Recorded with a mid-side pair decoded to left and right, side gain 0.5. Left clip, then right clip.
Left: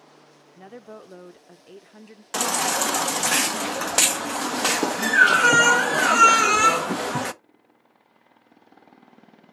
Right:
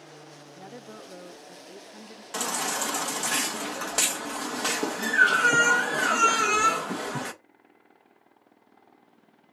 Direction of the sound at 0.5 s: 15° left.